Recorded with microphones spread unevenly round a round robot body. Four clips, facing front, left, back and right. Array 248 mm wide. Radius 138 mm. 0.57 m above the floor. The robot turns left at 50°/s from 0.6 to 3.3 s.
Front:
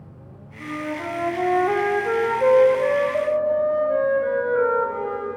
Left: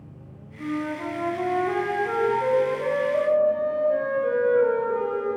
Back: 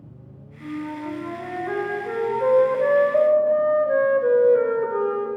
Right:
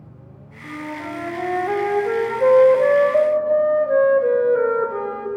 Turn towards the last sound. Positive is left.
turn(degrees=-110)